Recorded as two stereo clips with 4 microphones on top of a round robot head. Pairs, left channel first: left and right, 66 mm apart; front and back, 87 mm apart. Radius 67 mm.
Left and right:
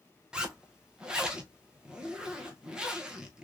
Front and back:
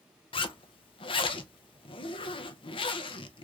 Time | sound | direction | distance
0.3 | a zipper | 10° right | 0.5 m